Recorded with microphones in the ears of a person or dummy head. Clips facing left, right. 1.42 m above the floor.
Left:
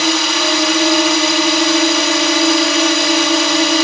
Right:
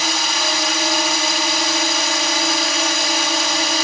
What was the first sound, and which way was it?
A drone, 60° left (ahead or behind).